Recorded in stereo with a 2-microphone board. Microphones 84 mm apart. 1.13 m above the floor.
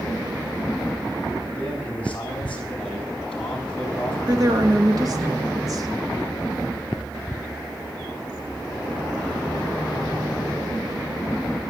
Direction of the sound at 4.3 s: 45° right (ahead or behind).